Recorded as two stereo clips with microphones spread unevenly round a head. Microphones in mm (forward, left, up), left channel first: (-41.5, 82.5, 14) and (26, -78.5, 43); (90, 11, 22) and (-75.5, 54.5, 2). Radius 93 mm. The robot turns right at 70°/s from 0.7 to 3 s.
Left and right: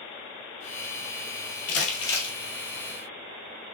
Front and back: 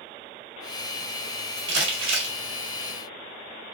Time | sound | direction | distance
1.7 | crumpling | 160° left | 1.6 m